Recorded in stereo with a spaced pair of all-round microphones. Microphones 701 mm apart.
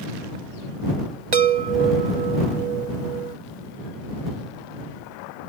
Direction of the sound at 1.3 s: 65° right (ahead or behind).